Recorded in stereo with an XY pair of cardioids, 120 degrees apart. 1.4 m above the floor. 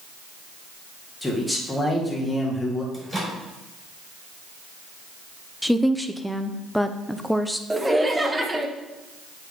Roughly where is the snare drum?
I don't hear a snare drum.